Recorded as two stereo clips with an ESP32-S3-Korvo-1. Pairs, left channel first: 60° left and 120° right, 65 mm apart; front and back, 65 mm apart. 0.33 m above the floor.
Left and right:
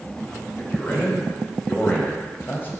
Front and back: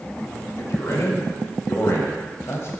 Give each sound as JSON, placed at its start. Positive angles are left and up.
{"t": 0.6, "sound": "a man speaking", "azimuth_deg": 15, "distance_m": 1.4}